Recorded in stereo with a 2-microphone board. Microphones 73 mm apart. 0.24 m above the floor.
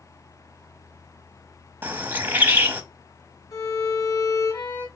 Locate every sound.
1.8 s a bird: 25° right (ahead or behind), 0.8 m
3.5 s a violin: 55° left (ahead or behind), 1.6 m